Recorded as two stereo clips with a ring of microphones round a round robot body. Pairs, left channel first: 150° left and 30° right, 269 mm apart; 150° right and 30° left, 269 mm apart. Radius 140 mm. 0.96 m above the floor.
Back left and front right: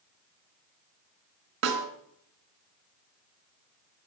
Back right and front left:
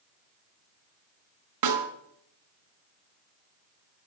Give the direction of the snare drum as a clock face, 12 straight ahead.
11 o'clock.